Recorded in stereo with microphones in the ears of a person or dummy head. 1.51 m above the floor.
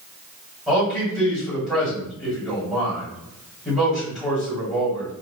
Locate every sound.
0.7 s a man speaking: centre (ahead or behind), 1.7 m